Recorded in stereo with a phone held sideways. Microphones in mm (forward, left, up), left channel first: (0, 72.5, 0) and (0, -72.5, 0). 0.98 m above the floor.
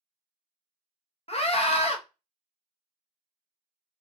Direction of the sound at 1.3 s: 45° left (ahead or behind).